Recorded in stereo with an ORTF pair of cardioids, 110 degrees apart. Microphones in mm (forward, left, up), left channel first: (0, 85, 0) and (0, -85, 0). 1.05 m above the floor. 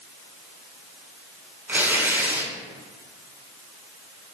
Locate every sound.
1.7 s tearing paper: 10° right, 5 m